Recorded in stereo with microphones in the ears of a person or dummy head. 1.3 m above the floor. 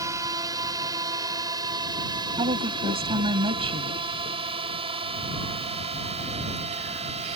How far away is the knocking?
No knocking in this recording.